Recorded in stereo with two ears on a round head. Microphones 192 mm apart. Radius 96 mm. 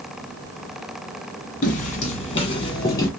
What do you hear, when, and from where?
1.6 s footsteps: 35° left (ahead or behind), 1.6 m; by 3.1 s 15° left (ahead or behind), 1.6 m